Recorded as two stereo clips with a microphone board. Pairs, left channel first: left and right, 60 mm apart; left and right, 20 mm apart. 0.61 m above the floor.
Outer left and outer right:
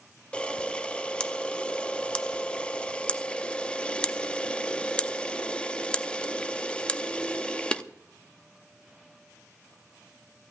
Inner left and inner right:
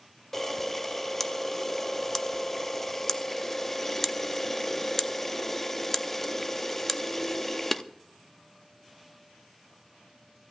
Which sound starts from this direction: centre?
A camera shutter, at 0.3 s.